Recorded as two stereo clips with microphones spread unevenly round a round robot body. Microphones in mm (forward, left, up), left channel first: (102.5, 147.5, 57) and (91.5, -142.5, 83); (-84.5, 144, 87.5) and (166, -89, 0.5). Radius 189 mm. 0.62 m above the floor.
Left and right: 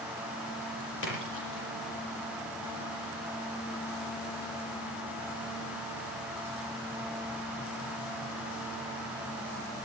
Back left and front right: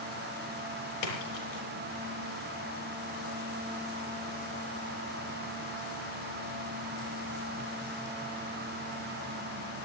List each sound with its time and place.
1.0 s a splash: 145° left, 6.5 m